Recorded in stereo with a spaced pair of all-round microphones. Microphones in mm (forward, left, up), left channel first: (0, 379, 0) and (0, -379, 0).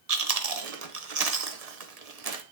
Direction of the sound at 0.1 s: 55° right (ahead or behind).